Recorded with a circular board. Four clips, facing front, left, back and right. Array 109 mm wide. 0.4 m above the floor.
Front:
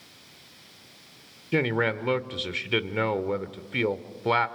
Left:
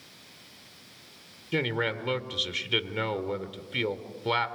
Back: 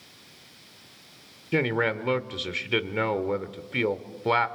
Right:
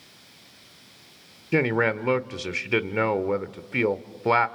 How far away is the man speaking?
About 1.0 m.